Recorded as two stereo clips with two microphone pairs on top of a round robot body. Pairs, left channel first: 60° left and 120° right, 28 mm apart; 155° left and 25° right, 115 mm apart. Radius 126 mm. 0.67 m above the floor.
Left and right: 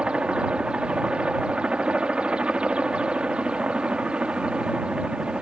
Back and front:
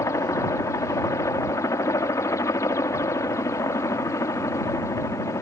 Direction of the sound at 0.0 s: 150° right.